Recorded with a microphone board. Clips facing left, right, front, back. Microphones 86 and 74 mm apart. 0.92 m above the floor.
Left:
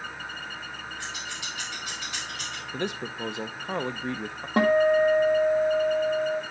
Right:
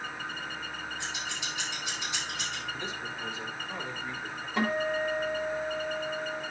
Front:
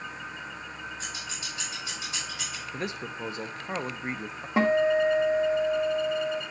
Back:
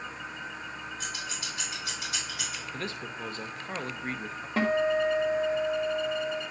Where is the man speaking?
70° left, 0.7 m.